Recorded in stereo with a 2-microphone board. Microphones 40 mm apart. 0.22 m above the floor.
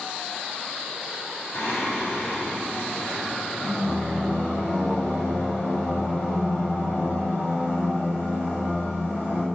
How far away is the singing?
About 4.5 m.